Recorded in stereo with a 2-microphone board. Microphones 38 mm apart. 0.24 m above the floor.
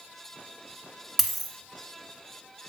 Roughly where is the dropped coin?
Centre.